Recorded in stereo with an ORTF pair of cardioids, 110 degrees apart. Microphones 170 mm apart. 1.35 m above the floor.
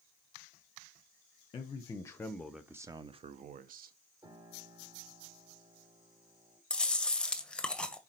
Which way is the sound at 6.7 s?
5° left.